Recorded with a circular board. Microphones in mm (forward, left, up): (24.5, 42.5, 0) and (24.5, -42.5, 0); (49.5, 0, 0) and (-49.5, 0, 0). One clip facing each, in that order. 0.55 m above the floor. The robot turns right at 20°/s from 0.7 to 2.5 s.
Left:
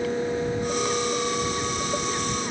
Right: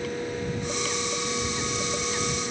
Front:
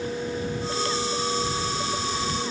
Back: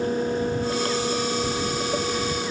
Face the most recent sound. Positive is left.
No sound to turn to.